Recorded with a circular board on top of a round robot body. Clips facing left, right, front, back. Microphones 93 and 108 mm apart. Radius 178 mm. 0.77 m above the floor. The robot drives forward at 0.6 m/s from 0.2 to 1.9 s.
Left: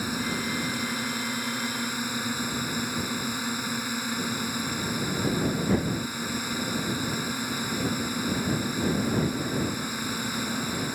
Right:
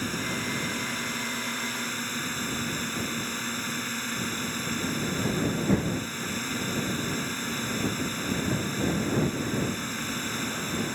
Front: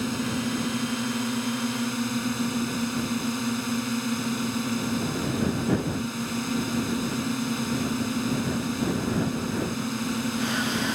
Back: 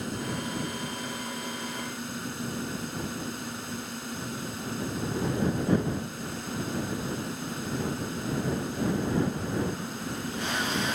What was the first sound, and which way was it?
A drone, 10° left.